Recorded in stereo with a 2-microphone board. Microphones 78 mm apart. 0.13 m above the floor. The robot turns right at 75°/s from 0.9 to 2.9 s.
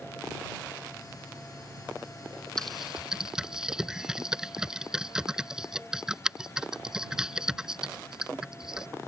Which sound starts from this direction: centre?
Typing on a keyboard, at 2.6 s.